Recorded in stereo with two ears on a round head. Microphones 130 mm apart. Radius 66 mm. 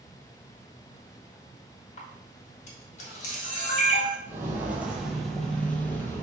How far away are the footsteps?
About 0.9 m.